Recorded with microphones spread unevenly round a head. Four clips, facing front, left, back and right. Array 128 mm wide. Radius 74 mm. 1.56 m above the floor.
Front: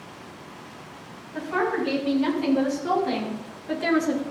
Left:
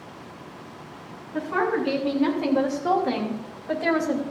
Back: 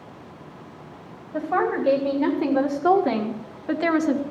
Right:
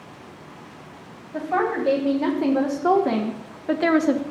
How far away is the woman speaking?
About 3 m.